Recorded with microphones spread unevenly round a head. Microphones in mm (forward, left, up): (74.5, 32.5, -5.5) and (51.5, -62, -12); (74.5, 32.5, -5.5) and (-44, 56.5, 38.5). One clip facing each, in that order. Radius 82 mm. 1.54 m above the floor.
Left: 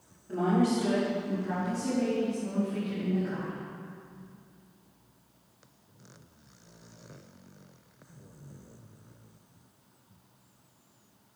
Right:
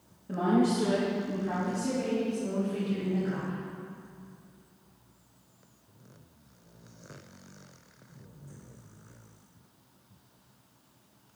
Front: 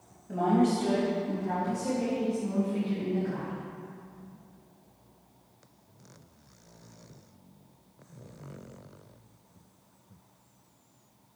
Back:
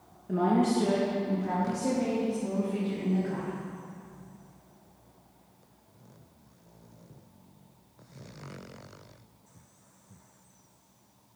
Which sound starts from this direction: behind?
A woman speaking, at 0.3 s.